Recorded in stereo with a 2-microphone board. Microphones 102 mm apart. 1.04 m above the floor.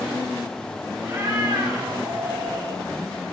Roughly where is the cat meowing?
Right.